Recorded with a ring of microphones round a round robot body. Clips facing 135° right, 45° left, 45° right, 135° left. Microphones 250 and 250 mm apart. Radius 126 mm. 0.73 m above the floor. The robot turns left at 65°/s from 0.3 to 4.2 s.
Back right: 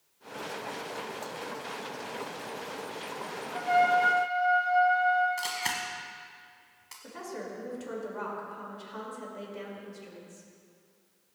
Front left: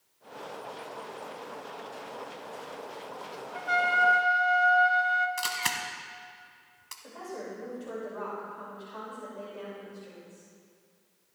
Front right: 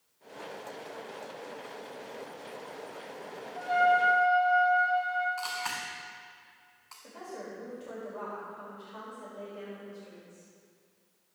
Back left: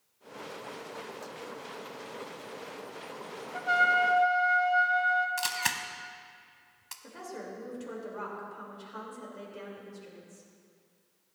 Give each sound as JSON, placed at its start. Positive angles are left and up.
{"t": 3.5, "sound": "a trumpet", "azimuth_deg": 125, "distance_m": 0.9}
{"t": 5.4, "sound": "a camera shutter", "azimuth_deg": 115, "distance_m": 0.8}
{"t": 7.0, "sound": "a woman speaking", "azimuth_deg": 180, "distance_m": 3.0}